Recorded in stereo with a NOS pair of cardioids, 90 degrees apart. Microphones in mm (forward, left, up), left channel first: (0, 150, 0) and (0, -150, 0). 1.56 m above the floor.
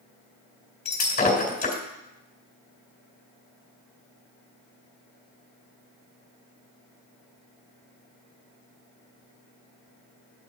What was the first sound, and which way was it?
Breaking glass, 30° left.